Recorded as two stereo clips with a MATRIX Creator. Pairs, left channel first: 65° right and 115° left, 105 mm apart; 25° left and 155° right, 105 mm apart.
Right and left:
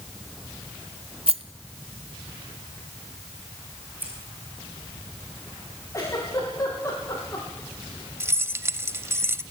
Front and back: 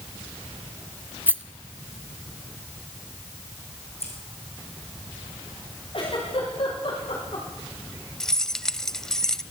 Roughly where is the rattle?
Behind left.